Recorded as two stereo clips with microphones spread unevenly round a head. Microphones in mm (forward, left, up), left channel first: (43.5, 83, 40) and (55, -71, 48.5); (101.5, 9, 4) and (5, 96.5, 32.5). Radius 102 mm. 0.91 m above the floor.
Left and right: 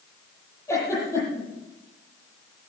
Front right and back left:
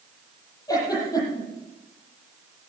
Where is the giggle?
20° left, 9.5 m.